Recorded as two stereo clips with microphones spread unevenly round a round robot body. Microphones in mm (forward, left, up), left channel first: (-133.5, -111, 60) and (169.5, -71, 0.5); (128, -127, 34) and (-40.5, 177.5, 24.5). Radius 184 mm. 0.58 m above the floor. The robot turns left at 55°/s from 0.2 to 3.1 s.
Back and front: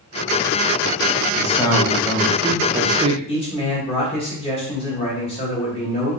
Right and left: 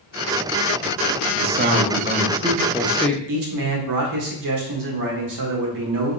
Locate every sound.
1.4 s a man speaking: 120° left, 0.6 m; by 3.2 s 25° left, 0.6 m
3.3 s a man speaking: 110° left, 1.3 m